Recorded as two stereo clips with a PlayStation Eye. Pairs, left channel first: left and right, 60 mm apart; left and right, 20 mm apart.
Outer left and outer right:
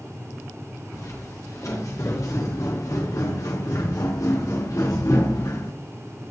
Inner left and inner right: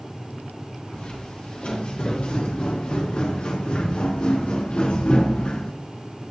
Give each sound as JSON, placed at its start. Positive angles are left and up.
{"t": 0.9, "sound": "footsteps", "side_deg": 65, "distance_m": 7.0}